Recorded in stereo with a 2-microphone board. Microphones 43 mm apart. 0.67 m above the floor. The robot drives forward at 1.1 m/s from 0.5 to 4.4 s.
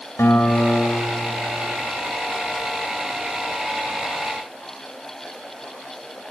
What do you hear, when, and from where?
0.2 s a guitar: 70° left (ahead or behind), 2.5 m; by 1.8 s 45° left (ahead or behind), 3 m